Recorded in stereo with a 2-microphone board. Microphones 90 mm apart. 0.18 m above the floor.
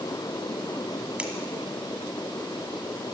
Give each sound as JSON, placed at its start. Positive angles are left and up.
{"t": 1.2, "sound": "scissors", "side_deg": -15, "distance_m": 1.6}